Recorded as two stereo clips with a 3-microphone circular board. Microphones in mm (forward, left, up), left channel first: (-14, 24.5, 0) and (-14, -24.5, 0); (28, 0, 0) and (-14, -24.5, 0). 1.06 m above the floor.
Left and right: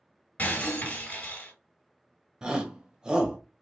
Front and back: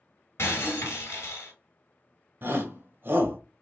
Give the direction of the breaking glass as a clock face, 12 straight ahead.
11 o'clock.